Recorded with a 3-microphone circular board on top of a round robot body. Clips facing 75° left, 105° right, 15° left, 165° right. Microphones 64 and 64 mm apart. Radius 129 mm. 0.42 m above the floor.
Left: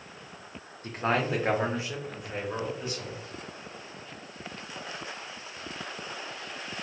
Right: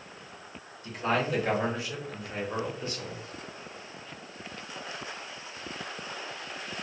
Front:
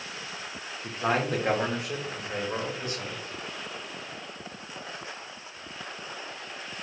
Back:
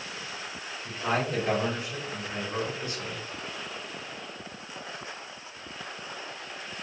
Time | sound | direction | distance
0.8 | a man speaking | 40° left | 1.3 m